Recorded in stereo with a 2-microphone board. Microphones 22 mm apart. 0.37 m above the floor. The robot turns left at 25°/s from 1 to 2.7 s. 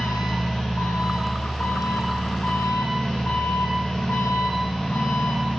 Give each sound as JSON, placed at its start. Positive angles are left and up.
{"t": 0.0, "sound": "an engine running", "azimuth_deg": 125, "distance_m": 6.0}